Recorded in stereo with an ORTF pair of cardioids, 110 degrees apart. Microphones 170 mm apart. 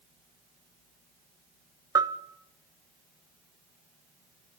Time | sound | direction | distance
1.9 | a bell | 20° right | 0.6 m